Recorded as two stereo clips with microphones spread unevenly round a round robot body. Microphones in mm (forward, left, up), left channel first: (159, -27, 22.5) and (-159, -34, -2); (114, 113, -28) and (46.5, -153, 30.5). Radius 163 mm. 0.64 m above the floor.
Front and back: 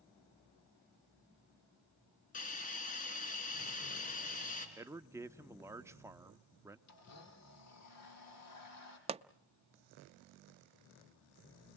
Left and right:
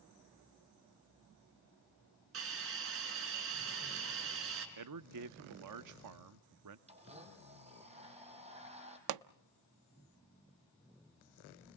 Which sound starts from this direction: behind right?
A pop, at 9.1 s.